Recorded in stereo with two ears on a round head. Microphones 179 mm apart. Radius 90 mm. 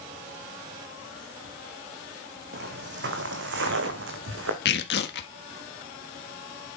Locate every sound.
2.5 s footsteps: 55° right (ahead or behind), 2.5 m; by 4.5 s 70° right (ahead or behind), 4 m
4.7 s tearing paper: 55° left (ahead or behind), 1.5 m